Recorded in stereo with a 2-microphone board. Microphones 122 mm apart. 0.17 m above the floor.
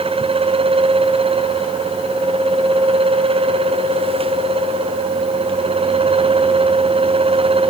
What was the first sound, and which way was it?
Only background noise.